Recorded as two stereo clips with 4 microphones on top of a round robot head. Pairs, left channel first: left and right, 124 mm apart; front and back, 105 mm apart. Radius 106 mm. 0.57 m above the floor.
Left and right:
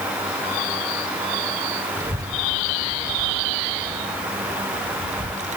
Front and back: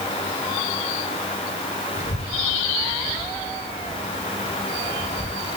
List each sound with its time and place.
2.0 s a child speaking: 20° right, 1.8 m; by 5.6 s 60° right, 3 m